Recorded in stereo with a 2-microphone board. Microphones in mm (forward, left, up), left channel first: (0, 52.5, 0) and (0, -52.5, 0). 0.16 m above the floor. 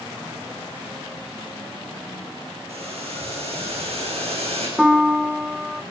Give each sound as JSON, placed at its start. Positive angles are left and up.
{"t": 2.7, "sound": "boiling", "side_deg": -75, "distance_m": 8.5}
{"t": 4.8, "sound": "a piano", "side_deg": -5, "distance_m": 0.9}